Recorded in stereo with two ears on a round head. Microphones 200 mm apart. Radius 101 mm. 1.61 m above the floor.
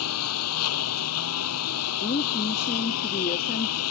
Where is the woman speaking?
30° left (ahead or behind).